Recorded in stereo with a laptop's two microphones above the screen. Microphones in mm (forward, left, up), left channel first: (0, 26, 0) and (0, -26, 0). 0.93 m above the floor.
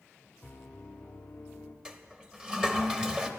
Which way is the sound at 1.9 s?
15° right (ahead or behind).